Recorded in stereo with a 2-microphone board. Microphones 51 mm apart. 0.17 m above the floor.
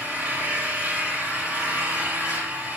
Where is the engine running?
50° right (ahead or behind), 4 m.